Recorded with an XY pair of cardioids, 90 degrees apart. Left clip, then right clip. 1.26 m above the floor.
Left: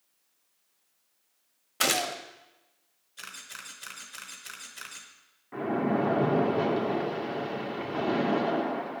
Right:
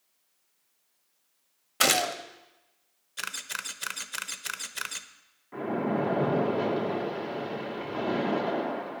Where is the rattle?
No rattle in this recording.